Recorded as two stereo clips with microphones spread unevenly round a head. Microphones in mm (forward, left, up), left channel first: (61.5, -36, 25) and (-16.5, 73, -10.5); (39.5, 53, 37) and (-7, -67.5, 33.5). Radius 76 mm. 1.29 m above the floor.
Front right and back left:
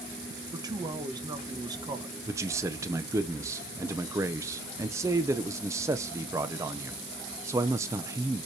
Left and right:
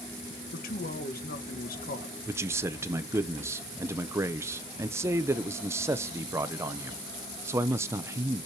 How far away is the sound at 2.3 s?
About 0.9 m.